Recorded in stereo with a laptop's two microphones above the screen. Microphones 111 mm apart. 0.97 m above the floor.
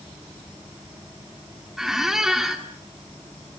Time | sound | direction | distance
1.8 | a squeak | 5° right (ahead or behind) | 1.5 m